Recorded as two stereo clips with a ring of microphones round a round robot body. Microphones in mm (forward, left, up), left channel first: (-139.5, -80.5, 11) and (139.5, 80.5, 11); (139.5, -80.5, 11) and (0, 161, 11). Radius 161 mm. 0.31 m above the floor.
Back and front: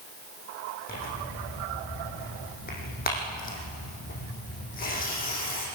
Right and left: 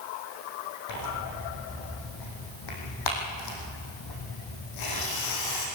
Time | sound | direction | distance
0.9 | tearing paper | 85° right | 5.5 m